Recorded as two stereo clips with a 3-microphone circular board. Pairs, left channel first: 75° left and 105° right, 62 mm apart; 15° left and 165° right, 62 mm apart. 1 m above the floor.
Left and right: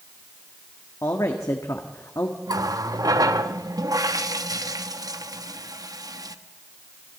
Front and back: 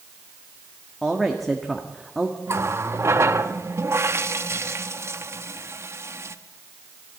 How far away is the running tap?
About 1.0 m.